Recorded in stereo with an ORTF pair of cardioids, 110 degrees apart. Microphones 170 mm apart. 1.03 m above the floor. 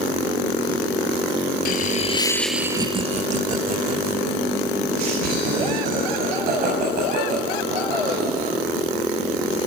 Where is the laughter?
60° left, 1.4 m; by 8.6 s 70° right, 9 m.